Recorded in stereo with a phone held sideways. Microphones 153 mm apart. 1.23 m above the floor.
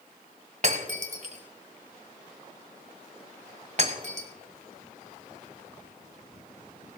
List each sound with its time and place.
0.6 s breaking glass: 50° right (ahead or behind), 1.7 m